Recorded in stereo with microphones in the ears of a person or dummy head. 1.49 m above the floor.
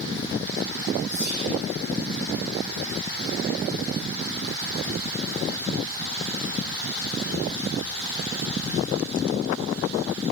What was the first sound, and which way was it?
Whispering, 25° right (ahead or behind).